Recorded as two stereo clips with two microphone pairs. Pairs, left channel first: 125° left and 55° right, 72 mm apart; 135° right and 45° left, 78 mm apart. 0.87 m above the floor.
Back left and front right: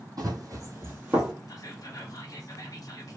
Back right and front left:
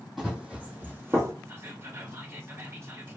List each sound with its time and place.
0.2 s running footsteps: 45° right, 1.5 m; by 1.3 s 30° left, 1.0 m
1.5 s whispering: 100° left, 0.9 m